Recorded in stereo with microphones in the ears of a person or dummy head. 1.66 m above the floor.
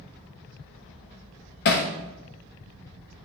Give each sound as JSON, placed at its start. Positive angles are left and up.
{"t": 1.6, "sound": "hammering", "side_deg": 45, "distance_m": 1.2}